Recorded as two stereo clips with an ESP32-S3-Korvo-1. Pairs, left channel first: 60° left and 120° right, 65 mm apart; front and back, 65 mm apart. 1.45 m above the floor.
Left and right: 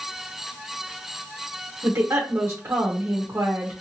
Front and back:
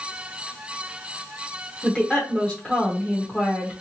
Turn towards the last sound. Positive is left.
turn(degrees=-75)